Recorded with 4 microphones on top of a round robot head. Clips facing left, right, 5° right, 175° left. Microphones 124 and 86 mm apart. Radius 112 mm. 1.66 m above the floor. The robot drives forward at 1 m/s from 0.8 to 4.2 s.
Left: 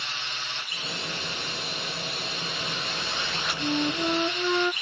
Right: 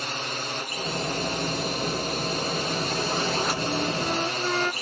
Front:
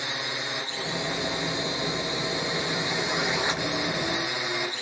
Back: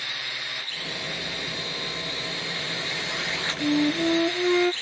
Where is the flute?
170° left.